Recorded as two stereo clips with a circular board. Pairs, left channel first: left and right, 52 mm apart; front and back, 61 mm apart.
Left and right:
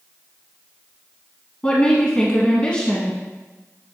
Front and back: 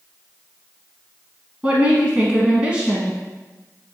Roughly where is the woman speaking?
Behind left.